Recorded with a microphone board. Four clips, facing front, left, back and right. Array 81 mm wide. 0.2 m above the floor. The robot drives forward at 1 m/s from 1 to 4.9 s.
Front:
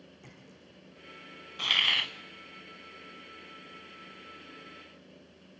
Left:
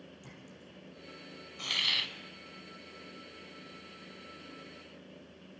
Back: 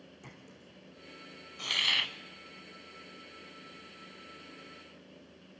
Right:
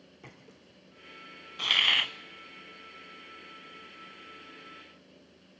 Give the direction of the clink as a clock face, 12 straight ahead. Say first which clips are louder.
Left 1 dB, back 1 dB; 3 o'clock.